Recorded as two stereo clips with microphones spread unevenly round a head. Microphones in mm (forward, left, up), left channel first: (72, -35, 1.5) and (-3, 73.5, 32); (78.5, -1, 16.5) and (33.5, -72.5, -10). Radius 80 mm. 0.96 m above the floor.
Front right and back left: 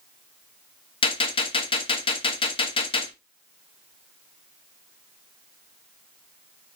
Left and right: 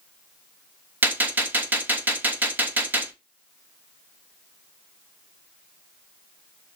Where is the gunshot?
75° right, 1.1 m.